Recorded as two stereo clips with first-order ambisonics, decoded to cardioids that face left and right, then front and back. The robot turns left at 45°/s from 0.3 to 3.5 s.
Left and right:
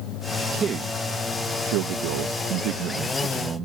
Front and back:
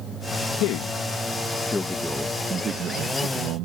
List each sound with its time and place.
0.6 s a man speaking: 25° right; by 3.6 s 155° right